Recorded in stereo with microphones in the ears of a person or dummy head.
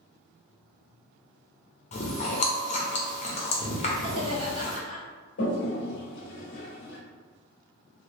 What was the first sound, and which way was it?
Chewing, 35° left (ahead or behind).